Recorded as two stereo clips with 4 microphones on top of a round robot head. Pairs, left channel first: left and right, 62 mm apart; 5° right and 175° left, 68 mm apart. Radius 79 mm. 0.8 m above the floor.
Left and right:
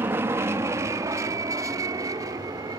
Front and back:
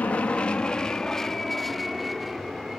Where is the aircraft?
65° right; by 2.8 s 100° right.